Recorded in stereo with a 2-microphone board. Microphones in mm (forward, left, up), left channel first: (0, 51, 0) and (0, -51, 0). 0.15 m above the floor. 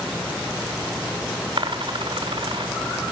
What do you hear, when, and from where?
1.6 s a dropped coin: 55° right (ahead or behind), 1.5 m